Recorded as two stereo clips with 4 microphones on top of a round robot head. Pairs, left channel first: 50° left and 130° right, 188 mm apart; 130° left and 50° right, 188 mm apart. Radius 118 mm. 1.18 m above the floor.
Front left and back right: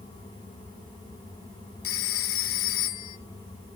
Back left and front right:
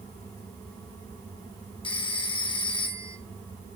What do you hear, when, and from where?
1.8 s a phone ringing: 65° left, 1.5 m